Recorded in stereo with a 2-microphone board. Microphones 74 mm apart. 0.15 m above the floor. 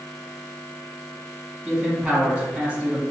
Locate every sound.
1.6 s a man speaking: 20° right (ahead or behind), 1.3 m